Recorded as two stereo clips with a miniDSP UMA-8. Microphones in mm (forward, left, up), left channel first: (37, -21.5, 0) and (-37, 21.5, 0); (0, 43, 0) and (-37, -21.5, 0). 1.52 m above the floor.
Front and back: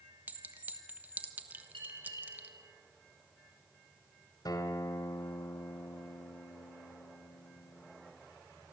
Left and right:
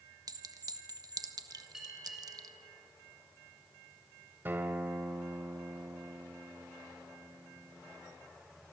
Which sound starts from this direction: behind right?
A clink, at 0.3 s.